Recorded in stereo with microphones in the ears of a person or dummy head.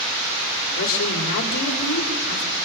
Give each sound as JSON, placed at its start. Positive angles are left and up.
{"t": 0.8, "sound": "a woman speaking", "side_deg": 45, "distance_m": 3.5}